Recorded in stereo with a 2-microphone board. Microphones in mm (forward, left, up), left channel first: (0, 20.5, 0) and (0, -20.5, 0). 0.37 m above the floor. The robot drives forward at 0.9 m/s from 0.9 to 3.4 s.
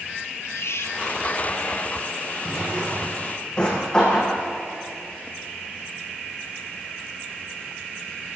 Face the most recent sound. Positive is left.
turn(degrees=20)  # may be behind; listen again after turning